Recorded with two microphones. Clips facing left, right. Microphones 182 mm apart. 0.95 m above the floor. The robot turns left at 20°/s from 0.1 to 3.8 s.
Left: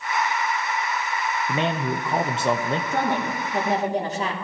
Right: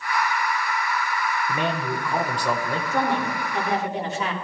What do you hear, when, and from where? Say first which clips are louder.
1.5 s a man speaking: left 4 dB; 20° left (ahead or behind), 0.7 m; by 2.8 s 25° left (ahead or behind), 0.7 m
2.9 s a woman speaking: right 3 dB; 55° left (ahead or behind), 2.5 m; by 4.3 s 40° left (ahead or behind), 2.5 m